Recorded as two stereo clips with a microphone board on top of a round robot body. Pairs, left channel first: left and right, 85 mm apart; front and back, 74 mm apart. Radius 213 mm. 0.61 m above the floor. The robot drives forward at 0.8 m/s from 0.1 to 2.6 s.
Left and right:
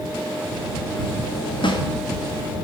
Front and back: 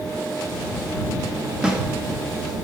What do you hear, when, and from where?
1.6 s a snare drum: 100° left, 2.0 m; by 1.8 s 105° left, 2 m